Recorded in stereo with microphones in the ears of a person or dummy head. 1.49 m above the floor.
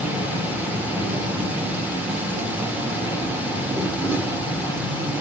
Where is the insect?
10° right (ahead or behind), 1.4 m.